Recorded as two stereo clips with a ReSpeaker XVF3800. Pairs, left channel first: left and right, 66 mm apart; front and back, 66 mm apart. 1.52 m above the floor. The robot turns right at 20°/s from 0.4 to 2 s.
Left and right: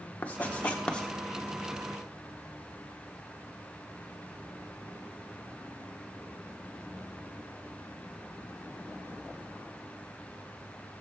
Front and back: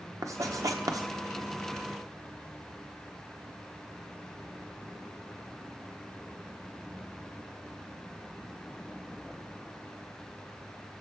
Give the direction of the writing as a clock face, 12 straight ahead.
7 o'clock.